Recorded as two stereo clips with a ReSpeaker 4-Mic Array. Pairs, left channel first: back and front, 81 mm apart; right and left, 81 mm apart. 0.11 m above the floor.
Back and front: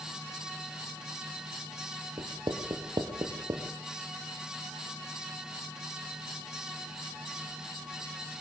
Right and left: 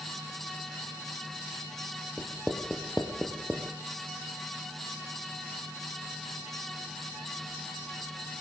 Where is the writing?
Straight ahead, 2.5 m.